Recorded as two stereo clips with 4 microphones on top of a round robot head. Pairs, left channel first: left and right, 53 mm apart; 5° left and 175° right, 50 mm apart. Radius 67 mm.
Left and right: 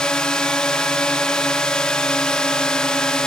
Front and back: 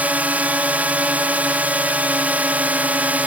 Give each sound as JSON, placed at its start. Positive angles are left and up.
{"t": 0.0, "sound": "a drone", "azimuth_deg": 155}